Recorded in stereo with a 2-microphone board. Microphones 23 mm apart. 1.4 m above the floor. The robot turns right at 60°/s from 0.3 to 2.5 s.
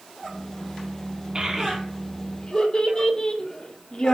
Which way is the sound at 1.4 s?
35° right (ahead or behind).